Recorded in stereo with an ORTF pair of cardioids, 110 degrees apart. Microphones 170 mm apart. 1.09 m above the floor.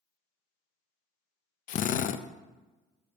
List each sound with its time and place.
1.7 s a drill: 50° left, 0.7 m